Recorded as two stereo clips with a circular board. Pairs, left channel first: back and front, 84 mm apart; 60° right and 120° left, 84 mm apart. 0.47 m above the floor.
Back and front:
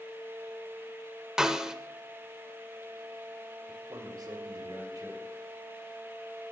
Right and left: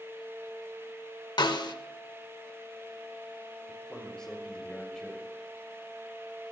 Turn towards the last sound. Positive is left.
turn(degrees=20)